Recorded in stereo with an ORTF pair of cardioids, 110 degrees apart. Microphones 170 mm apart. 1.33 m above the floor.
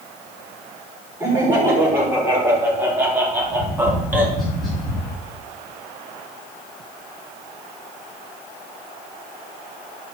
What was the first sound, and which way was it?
Laughter, 15° right.